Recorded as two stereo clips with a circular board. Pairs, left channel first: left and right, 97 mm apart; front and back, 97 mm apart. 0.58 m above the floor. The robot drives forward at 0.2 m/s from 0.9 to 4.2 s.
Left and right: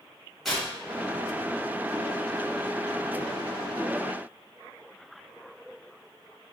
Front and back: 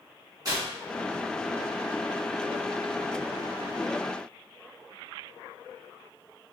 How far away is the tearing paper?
About 1.5 m.